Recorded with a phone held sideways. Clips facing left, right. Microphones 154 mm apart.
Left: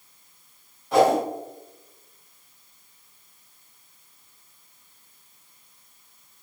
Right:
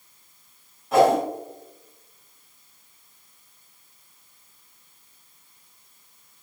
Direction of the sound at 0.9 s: Centre (ahead or behind).